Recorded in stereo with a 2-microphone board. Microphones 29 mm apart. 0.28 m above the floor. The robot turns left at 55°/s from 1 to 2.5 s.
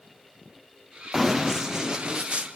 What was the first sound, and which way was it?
Running footsteps, 5° right (ahead or behind).